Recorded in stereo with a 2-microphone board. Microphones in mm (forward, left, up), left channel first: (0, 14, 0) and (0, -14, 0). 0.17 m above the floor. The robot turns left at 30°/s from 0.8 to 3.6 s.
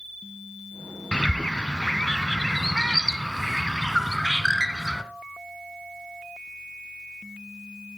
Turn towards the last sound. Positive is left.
turn(degrees=-5)